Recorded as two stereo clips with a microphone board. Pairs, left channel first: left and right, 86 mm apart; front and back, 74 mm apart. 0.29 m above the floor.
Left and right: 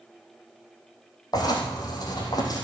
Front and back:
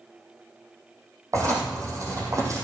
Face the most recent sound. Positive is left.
turn(degrees=130)